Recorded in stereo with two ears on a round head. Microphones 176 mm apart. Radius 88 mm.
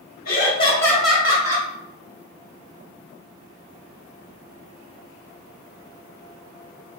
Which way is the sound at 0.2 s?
45° left (ahead or behind).